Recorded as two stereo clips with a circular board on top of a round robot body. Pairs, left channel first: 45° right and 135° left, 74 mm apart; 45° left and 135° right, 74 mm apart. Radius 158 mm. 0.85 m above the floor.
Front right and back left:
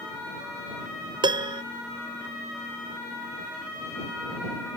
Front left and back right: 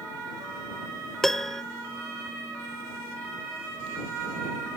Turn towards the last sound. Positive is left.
turn(degrees=130)